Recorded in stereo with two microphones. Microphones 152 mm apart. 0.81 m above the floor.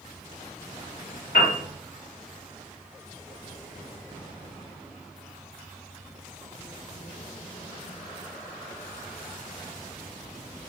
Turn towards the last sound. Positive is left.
turn(degrees=70)  # may be behind; listen again after turning